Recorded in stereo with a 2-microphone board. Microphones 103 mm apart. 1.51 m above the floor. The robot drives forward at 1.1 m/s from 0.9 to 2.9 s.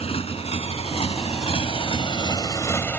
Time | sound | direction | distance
0.0 | a motorcycle | 80° left | ?